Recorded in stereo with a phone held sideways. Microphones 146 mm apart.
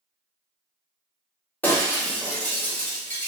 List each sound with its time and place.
1.6 s breaking glass: 10° left (ahead or behind), 1.0 m